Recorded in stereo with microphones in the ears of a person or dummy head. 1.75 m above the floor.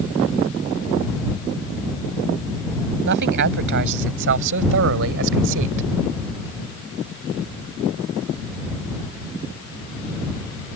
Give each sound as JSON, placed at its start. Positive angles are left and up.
{"t": 3.0, "sound": "a man speaking", "side_deg": -55}